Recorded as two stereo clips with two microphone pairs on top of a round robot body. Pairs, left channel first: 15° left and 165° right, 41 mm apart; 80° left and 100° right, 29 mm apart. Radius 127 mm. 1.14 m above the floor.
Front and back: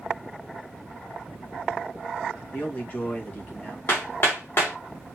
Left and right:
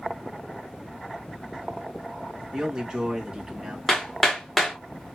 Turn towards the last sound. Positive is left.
turn(degrees=-10)